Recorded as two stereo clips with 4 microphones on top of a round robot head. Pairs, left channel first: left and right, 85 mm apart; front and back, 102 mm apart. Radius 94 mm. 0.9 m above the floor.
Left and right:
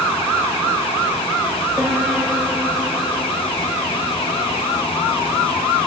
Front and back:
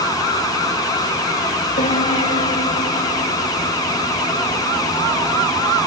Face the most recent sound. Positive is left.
turn(degrees=-15)